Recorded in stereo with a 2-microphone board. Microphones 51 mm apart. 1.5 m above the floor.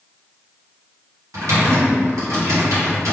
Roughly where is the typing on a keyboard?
Right.